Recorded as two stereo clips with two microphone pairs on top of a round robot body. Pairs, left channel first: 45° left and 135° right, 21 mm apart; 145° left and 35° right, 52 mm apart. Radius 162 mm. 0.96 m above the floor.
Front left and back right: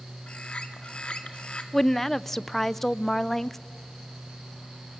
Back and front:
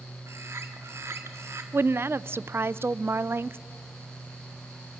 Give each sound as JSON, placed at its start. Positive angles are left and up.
{"t": 0.3, "sound": "a bird", "azimuth_deg": 5, "distance_m": 1.7}
{"t": 1.7, "sound": "a woman speaking", "azimuth_deg": -35, "distance_m": 0.5}